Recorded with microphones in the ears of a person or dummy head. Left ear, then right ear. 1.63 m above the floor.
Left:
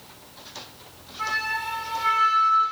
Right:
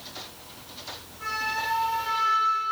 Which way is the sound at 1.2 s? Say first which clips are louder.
Left 2 dB; 50° left (ahead or behind).